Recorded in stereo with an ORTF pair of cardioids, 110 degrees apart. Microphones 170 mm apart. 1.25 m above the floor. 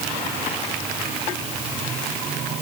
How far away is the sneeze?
No sneeze in this recording.